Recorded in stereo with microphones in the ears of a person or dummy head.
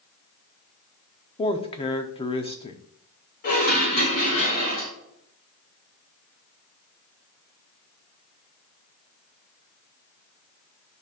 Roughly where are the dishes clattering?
Left.